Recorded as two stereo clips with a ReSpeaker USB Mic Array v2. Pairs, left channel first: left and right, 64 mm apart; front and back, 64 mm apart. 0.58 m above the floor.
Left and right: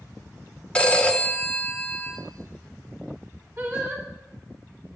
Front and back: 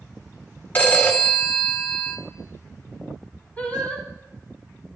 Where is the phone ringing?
40° left, 0.7 m.